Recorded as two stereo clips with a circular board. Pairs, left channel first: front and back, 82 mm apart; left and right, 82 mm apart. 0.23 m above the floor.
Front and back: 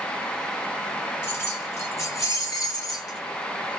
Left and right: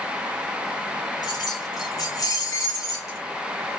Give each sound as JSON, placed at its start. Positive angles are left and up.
{"t": 1.2, "sound": "keys jangling", "azimuth_deg": 60, "distance_m": 4.0}